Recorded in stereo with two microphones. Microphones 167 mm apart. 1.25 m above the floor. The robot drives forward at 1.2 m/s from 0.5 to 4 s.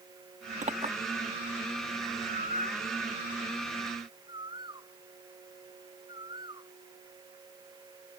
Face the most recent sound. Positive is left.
turn(degrees=-30)  # may be behind; listen again after turning